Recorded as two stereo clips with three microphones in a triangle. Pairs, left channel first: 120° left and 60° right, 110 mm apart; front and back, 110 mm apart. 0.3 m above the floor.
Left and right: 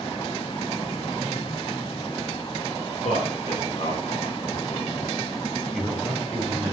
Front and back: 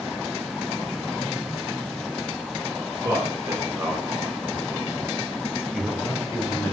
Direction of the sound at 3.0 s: 120° left.